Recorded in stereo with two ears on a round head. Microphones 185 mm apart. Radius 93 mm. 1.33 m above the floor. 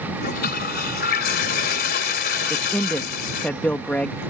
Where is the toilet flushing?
50° left (ahead or behind).